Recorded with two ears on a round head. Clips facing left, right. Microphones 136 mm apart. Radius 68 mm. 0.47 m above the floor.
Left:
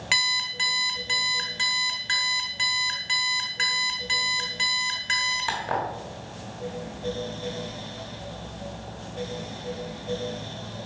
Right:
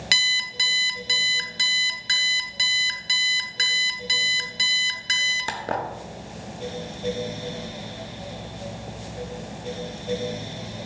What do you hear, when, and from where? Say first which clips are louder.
0.1 s an alarm clock: left 2 dB; 45° right (ahead or behind), 0.8 m